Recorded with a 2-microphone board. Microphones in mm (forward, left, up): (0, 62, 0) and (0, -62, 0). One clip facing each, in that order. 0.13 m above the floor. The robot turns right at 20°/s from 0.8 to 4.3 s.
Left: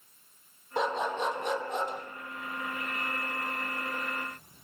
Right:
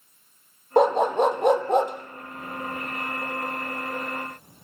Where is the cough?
I don't hear a cough.